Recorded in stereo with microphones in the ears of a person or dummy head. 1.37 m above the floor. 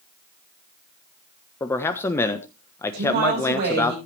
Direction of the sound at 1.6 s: 20° left (ahead or behind).